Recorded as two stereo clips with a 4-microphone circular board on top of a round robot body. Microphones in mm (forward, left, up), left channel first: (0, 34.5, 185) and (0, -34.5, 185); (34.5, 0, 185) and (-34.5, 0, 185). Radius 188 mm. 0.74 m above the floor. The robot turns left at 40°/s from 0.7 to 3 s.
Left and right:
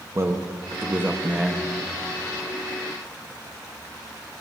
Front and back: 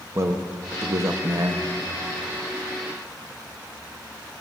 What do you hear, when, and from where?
0.1 s a man speaking: 135° right, 1.7 m; by 1.6 s 175° right, 1.7 m